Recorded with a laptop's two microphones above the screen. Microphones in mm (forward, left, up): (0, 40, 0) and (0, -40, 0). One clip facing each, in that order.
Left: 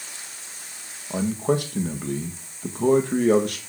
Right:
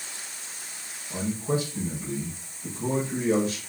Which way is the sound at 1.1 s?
65° left (ahead or behind).